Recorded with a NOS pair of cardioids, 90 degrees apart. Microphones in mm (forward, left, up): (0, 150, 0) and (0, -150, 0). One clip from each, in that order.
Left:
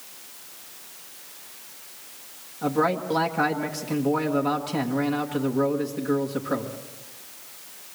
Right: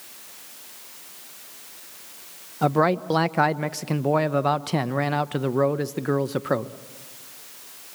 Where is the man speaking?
65° right, 1.0 m.